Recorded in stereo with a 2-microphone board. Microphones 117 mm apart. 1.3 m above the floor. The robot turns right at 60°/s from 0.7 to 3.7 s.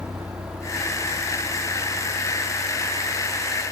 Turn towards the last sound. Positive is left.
turn(degrees=35)  # may be behind; listen again after turning